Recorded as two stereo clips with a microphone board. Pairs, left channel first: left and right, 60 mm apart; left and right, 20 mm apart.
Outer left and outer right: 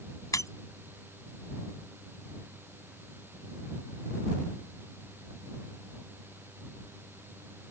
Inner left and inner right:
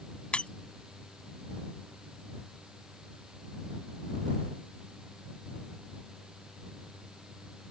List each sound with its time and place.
0.3 s breaking glass: 75° left (ahead or behind)